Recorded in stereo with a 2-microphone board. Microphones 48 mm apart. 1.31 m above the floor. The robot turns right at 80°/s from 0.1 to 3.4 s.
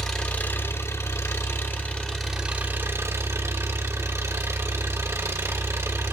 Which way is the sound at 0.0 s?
5° left.